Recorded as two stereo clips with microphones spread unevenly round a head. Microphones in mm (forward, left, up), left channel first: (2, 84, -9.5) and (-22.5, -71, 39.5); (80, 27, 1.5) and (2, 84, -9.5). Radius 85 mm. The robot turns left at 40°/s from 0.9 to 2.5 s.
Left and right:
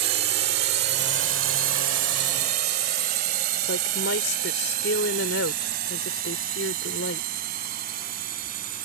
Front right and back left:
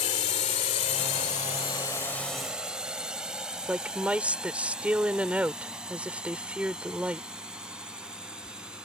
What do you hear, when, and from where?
0.0 s a drone: 65° right; by 8.9 s 130° right
3.7 s a woman speaking: 65° left